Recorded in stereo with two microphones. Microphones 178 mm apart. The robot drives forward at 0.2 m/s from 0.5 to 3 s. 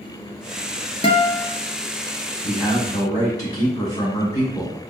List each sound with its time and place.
1.0 s a guitar: 35° left (ahead or behind), 0.7 m; by 1.5 s 30° left (ahead or behind), 0.8 m
2.4 s a man speaking: 25° left (ahead or behind), 1.4 m